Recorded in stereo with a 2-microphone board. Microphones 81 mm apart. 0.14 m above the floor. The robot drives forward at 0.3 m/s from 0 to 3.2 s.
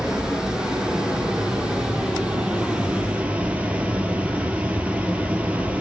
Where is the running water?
10° right (ahead or behind), 1.9 m; by 5.8 s 15° right (ahead or behind), 1.0 m.